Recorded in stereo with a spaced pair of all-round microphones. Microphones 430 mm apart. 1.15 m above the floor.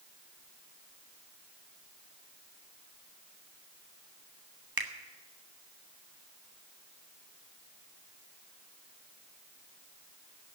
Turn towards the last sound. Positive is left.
turn(degrees=-55)  # may be behind; listen again after turning